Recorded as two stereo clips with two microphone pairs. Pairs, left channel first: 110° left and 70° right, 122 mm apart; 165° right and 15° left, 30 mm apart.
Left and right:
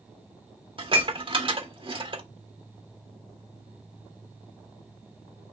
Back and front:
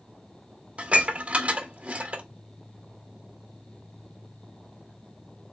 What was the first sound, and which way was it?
Dishes clattering, 30° right.